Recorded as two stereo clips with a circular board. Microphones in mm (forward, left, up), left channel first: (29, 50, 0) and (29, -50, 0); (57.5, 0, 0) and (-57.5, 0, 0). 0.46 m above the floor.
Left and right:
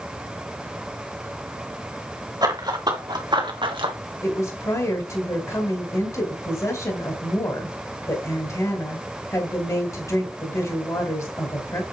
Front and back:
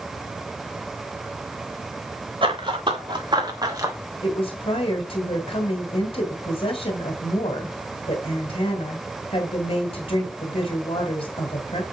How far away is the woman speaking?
About 1.9 m.